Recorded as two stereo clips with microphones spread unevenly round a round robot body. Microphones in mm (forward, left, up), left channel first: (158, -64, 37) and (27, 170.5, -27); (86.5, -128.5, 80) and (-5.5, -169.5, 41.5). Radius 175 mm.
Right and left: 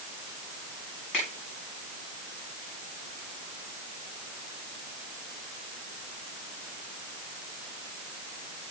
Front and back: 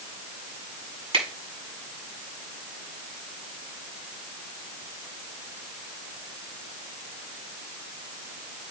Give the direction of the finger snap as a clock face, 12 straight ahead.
5 o'clock.